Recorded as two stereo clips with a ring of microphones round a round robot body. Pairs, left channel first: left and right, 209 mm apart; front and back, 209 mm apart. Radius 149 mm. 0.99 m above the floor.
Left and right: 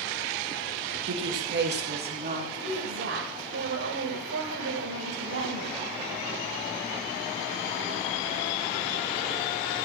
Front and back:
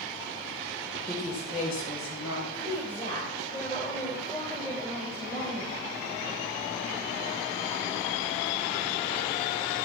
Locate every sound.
1.1 s a woman speaking: 75° right, 1.6 m; by 2.4 s 45° right, 2.5 m
2.5 s a woman speaking: 85° right, 4.5 m